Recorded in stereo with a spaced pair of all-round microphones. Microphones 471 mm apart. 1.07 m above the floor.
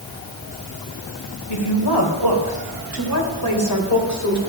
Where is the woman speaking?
60° left (ahead or behind), 3.5 m; by 4.4 s 35° left (ahead or behind), 3.5 m.